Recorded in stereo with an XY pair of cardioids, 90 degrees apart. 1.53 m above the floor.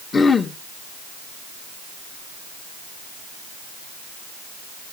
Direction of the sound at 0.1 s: 40° left.